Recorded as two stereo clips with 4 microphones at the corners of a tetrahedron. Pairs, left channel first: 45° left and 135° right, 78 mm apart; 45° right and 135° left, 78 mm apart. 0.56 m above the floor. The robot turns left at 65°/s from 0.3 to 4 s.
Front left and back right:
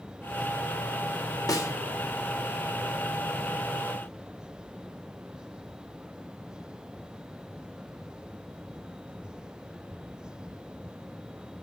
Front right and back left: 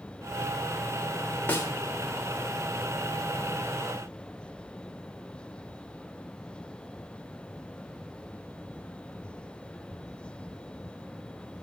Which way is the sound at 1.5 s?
20° left.